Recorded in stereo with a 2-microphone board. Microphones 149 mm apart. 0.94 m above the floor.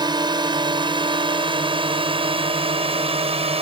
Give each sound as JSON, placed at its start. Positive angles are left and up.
{"t": 0.0, "sound": "a drone", "side_deg": -30}